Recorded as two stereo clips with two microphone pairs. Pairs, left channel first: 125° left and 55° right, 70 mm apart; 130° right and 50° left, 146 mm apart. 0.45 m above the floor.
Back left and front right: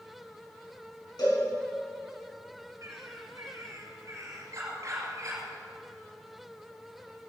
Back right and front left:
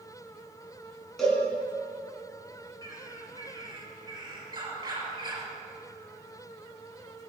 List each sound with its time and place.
1.2 s a cowbell: 140° left, 5.5 m
2.8 s a bird: 10° right, 2.5 m